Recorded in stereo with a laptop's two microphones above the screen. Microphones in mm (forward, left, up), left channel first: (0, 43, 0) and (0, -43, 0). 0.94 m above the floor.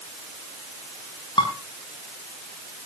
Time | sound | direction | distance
1.4 | dishes clattering | 70° left (ahead or behind) | 5.5 m